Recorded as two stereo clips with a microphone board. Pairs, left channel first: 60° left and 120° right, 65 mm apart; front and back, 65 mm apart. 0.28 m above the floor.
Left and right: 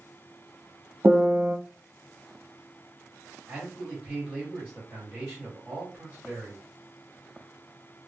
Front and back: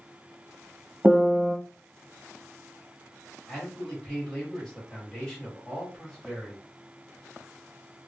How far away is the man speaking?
About 1.5 m.